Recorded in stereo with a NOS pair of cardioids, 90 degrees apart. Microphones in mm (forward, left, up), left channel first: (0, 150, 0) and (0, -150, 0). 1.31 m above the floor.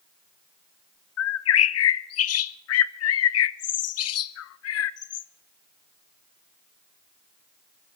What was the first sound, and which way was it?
A bird, 55° left.